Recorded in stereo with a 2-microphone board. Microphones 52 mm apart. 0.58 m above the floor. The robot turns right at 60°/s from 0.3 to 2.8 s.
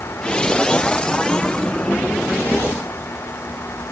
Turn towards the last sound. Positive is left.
No sound to turn to.